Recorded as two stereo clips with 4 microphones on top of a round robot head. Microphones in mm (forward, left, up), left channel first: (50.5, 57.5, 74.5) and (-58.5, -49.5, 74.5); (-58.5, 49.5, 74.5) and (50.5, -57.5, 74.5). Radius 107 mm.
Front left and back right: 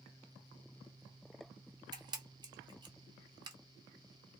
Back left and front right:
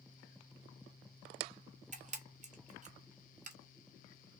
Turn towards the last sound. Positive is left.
turn(degrees=-75)